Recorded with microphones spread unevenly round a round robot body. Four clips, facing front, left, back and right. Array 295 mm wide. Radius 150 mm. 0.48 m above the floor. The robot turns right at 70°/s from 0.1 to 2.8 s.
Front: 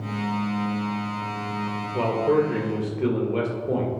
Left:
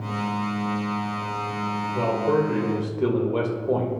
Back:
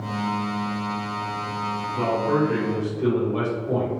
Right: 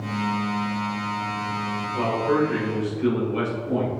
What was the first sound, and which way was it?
A man speaking, 15° left.